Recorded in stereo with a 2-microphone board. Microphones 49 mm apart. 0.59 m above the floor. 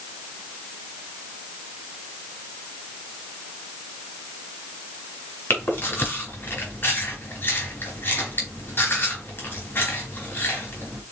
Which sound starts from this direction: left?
Chewing, at 5.5 s.